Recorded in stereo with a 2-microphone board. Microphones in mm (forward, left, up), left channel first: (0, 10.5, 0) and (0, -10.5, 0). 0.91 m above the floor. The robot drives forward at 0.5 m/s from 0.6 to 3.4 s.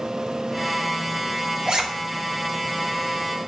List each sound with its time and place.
1.7 s a zipper: 35° right (ahead or behind), 1.1 m; by 1.8 s 40° right (ahead or behind), 1.0 m